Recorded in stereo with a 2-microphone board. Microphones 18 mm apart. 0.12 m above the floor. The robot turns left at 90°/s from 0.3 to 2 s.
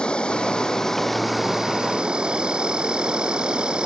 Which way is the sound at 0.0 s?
80° left.